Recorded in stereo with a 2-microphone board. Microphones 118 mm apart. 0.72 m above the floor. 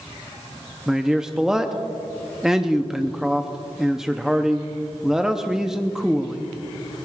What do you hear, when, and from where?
0.9 s a man speaking: 5° right (ahead or behind), 0.6 m